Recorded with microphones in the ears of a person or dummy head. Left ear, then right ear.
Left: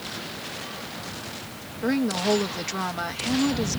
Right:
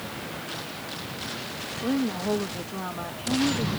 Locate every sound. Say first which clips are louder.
1.8 s a woman speaking: left 4 dB; 70° left (ahead or behind)